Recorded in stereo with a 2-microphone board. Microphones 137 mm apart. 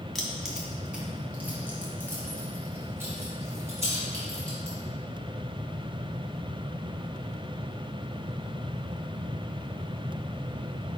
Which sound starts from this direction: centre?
Keys jangling, at 0.1 s.